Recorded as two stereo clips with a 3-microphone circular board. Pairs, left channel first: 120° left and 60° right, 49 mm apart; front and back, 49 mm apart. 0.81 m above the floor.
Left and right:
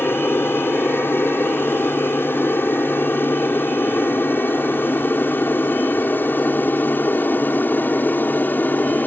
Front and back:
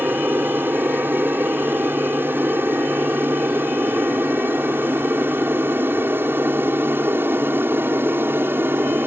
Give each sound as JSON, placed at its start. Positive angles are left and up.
{"t": 0.0, "sound": "an aircraft", "azimuth_deg": 145}